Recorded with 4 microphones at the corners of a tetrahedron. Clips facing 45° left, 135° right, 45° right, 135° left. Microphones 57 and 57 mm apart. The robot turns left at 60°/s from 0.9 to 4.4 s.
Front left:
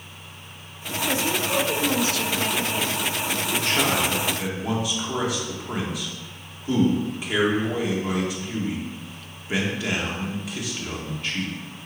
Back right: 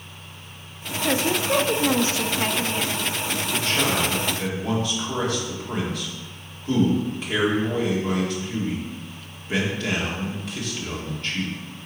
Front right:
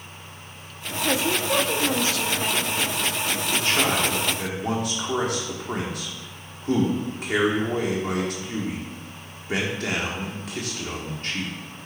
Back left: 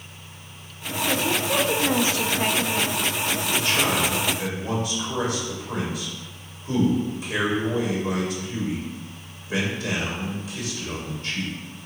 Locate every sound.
1.0 s a woman speaking: 115° right, 0.7 m; by 3.0 s 125° left, 0.7 m
3.5 s a man speaking: 15° left, 2 m; by 11.5 s 40° right, 2 m